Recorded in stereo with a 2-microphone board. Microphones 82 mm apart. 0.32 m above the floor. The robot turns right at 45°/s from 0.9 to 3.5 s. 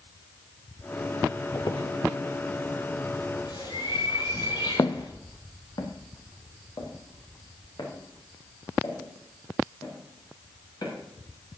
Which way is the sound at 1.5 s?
50° left (ahead or behind).